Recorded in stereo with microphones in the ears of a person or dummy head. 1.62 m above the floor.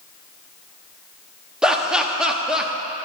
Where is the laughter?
10° right (ahead or behind), 0.5 m.